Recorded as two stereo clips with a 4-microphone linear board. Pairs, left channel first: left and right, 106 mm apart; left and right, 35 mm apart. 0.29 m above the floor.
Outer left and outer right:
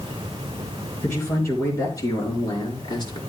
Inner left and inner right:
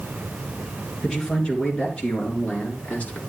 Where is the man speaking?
25° left (ahead or behind), 5 m; by 3.2 s 45° left (ahead or behind), 4.5 m.